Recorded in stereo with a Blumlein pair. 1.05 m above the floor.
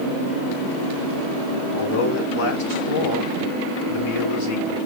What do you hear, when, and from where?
1.7 s a man speaking: 60° left, 3.5 m